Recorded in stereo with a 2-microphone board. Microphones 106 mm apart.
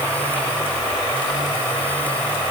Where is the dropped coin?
No dropped coin in this recording.